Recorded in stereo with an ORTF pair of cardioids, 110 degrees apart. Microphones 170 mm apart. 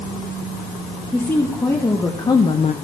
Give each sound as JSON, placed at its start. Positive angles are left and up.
{"t": 1.1, "sound": "a woman speaking", "azimuth_deg": 15, "distance_m": 2.0}